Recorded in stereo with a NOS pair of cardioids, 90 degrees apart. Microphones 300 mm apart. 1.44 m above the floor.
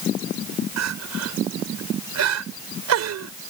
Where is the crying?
60° right.